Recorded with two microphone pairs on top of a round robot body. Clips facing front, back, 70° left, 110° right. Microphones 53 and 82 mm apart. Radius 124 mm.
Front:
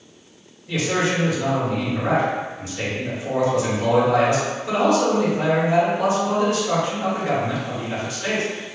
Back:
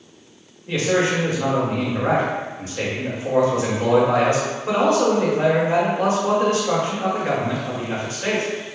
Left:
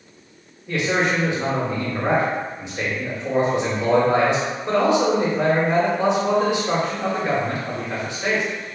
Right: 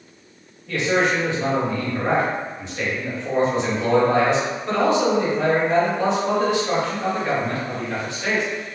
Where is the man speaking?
135° left, 1.2 m.